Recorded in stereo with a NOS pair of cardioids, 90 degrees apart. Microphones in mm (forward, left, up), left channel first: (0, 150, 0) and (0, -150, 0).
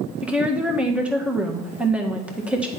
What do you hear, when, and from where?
0.2 s a woman speaking: 5° right, 1.7 m